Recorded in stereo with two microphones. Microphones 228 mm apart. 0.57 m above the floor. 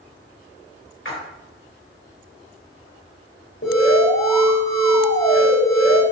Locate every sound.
1.1 s a splash: 60° left (ahead or behind), 2 m
3.6 s an alarm: 55° left (ahead or behind), 3.5 m